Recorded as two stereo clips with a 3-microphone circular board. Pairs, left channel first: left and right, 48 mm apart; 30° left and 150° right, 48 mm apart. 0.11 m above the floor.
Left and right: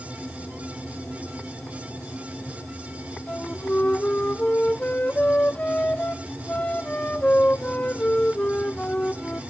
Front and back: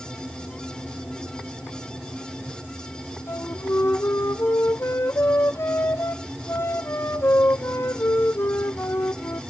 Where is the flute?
35° left, 0.7 m.